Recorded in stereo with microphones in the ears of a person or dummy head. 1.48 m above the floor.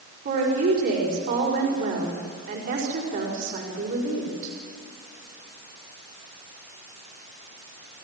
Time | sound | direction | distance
0.2 | a woman speaking | 55° right (ahead or behind) | 5.5 m